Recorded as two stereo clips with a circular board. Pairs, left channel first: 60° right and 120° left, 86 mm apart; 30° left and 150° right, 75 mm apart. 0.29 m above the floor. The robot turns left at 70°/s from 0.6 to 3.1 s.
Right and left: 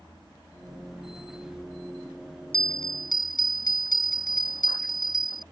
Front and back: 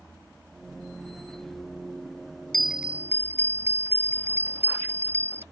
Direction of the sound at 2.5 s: 55° right.